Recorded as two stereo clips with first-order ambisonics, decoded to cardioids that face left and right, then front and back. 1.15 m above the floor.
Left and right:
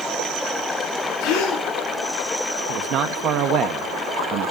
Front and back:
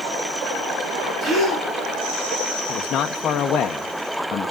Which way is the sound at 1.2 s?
115° left.